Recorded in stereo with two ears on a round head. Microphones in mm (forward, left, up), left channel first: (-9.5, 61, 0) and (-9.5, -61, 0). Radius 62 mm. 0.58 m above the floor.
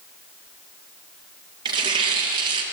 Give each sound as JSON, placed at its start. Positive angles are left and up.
{"t": 1.6, "sound": "tearing paper", "side_deg": -40, "distance_m": 5.0}